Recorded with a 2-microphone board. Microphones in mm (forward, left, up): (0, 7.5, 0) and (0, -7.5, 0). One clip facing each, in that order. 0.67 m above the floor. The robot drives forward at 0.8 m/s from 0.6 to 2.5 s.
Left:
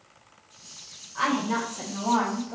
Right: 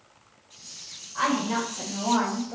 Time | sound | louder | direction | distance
1.1 | a woman speaking | even | 15° right (ahead or behind) | 1.8 m